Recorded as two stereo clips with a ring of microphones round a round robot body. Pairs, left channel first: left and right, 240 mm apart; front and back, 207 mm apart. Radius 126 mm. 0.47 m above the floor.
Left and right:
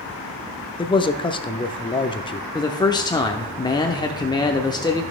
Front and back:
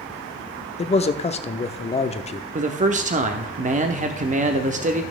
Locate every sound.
0.8 s a man speaking: 35° left, 0.8 m
2.5 s a man speaking: 155° left, 0.8 m